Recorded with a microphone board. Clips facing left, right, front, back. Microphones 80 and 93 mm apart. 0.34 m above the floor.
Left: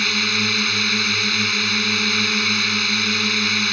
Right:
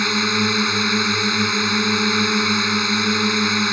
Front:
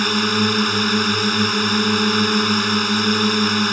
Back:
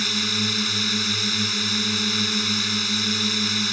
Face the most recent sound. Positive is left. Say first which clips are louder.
# right 4 dB, front 9 dB
turn(degrees=-25)